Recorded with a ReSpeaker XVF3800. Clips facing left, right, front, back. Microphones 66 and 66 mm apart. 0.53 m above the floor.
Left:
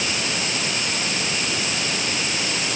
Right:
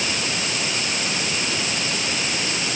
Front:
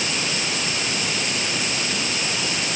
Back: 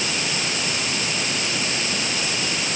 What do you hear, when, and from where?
Only background noise.